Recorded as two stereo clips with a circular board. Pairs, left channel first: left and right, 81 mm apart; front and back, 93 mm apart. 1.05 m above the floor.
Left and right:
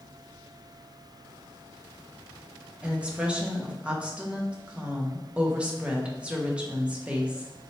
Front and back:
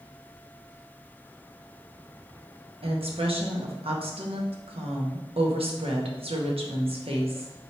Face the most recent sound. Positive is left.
turn(degrees=-165)